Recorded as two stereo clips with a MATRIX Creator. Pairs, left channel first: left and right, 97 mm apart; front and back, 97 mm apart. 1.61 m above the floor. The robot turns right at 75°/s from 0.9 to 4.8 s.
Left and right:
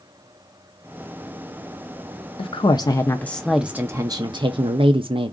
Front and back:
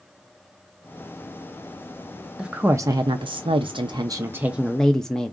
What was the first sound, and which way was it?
A woman speaking, 95° left.